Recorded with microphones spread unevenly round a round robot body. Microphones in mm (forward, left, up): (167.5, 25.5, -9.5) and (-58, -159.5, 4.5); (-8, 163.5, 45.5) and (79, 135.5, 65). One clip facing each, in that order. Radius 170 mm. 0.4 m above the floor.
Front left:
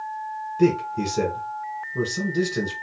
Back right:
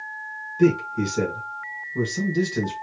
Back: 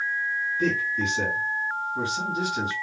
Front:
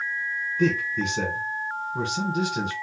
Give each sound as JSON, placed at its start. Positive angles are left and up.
{"t": 0.6, "sound": "a man speaking", "azimuth_deg": -45, "distance_m": 1.7}